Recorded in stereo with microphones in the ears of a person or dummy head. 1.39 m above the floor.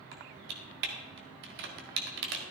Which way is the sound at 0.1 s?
65° right (ahead or behind).